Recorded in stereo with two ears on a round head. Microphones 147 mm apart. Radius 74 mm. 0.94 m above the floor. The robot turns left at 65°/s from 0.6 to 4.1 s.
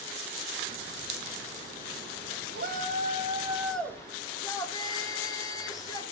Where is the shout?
105° right, 3 m; by 6.0 s 155° left, 3 m.